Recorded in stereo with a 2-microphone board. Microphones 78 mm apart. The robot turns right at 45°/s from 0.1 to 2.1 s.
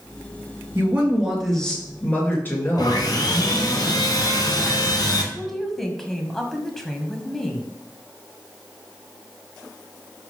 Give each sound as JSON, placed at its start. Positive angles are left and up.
{"t": 0.8, "sound": "a woman speaking", "azimuth_deg": -30, "distance_m": 3.5}
{"t": 2.8, "sound": "sawing", "side_deg": 60, "distance_m": 1.7}
{"t": 5.3, "sound": "a woman speaking", "side_deg": 5, "distance_m": 1.6}